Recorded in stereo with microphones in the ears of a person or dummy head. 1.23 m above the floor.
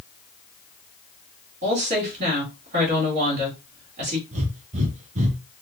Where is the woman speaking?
40° right (ahead or behind), 2.0 m.